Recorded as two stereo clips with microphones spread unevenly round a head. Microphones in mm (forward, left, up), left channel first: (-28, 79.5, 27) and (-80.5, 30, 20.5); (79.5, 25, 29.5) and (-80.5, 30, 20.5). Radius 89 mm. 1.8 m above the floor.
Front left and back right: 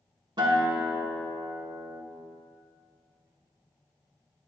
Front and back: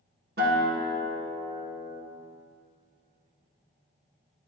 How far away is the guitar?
About 1.5 m.